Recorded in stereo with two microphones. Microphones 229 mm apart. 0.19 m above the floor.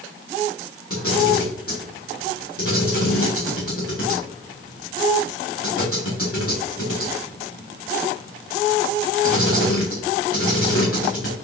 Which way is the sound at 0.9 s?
75° left (ahead or behind).